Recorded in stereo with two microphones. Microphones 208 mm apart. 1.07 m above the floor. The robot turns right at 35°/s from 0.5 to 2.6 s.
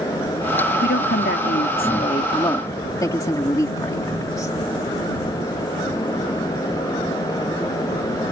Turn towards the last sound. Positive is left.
turn(degrees=165)